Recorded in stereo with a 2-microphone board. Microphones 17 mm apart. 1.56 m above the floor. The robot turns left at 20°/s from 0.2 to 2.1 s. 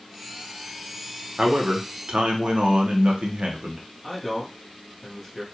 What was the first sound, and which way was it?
A man speaking, 75° right (ahead or behind).